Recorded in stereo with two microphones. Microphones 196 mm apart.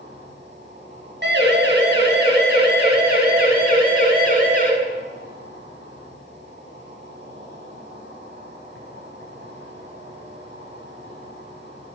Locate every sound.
0.0 s an insect: 65° right (ahead or behind), 10 m
1.2 s a siren: 65° right (ahead or behind), 7.5 m; by 4.7 s 50° right (ahead or behind), 10 m